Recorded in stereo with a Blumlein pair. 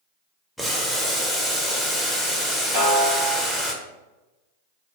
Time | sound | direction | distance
0.6 | boiling | straight ahead | 0.6 m
2.7 | a snare drum | 70° right | 1.7 m